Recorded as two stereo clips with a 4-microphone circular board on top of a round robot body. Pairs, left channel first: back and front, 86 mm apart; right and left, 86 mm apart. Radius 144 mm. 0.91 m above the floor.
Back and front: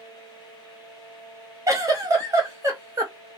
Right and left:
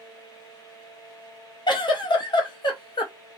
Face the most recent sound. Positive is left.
turn(degrees=-55)